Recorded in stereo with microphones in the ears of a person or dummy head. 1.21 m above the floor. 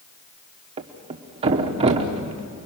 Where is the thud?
35° right (ahead or behind), 1.2 m.